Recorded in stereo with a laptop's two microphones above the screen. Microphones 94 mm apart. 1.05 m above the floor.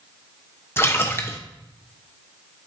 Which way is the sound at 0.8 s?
30° left (ahead or behind).